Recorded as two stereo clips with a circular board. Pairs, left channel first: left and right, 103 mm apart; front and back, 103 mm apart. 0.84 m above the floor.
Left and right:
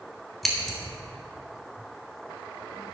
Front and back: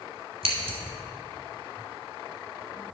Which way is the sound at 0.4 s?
Straight behind.